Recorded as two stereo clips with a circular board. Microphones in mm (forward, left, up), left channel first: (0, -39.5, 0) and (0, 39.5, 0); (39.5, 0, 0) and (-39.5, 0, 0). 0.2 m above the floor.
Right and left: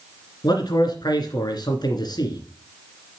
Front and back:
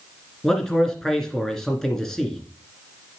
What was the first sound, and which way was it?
A man speaking, 85° right.